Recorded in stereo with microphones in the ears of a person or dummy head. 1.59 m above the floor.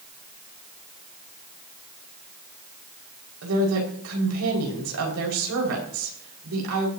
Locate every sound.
3.4 s a woman speaking: 80° right, 5.5 m